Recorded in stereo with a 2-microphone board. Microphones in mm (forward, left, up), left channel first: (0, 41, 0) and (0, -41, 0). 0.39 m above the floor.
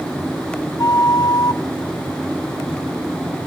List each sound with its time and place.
0.8 s a flute: 55° left (ahead or behind), 0.7 m